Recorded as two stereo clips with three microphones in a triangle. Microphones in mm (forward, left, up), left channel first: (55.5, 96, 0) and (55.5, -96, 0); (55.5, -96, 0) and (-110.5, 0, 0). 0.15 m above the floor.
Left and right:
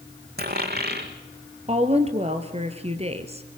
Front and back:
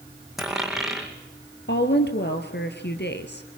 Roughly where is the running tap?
No running tap in this recording.